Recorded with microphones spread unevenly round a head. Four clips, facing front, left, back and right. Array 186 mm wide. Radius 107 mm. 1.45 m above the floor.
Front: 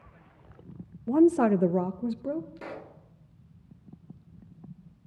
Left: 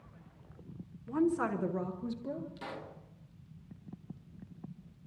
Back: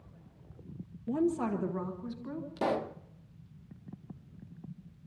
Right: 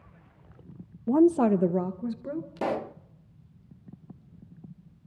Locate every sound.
1.1 s a woman speaking: 70° right, 0.8 m; by 2.5 s 10° right, 1.5 m
2.6 s a pop: 125° right, 0.5 m